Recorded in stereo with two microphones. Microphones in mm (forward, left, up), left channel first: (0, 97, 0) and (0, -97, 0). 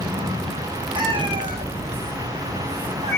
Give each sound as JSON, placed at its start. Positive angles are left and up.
{"t": 0.9, "sound": "a cat meowing", "side_deg": -25, "distance_m": 4.5}